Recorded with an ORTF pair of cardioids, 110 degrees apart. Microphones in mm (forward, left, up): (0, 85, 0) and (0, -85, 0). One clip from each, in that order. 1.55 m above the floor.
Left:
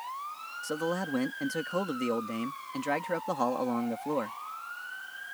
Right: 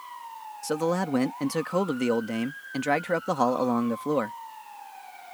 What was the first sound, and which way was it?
A man speaking, 40° right.